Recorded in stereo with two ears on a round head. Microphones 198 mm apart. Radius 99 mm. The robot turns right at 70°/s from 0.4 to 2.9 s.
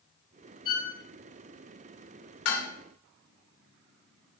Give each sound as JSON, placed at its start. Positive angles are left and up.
{"t": 0.7, "sound": "a violin", "side_deg": 25, "distance_m": 2.0}
{"t": 2.5, "sound": "dishes clattering", "side_deg": 75, "distance_m": 2.0}